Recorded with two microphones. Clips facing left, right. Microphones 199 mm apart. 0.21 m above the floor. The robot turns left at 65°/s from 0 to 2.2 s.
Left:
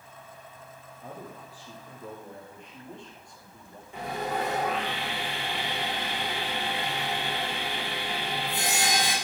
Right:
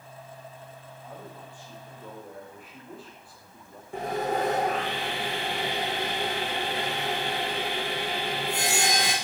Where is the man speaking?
75° left, 6 m; by 3.8 s 5° right, 6 m.